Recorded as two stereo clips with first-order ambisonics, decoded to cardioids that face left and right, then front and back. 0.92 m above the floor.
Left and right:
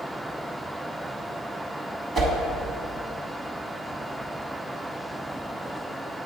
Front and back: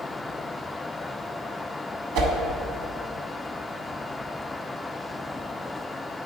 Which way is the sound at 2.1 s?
175° left.